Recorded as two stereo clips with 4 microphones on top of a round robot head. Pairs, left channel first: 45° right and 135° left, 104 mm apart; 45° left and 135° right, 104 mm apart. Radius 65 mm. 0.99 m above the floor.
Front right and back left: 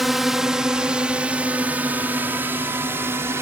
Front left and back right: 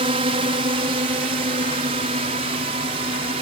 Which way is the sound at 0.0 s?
140° right.